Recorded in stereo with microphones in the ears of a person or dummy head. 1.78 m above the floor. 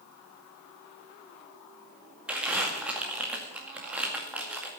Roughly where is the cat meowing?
No cat meowing in this recording.